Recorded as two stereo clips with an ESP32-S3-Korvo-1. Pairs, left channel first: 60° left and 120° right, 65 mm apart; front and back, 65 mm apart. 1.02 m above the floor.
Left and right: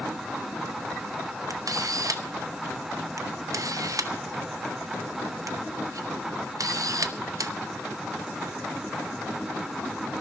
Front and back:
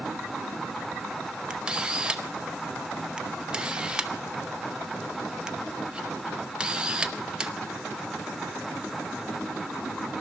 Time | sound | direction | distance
1.5 | a camera shutter | 105° right | 0.7 m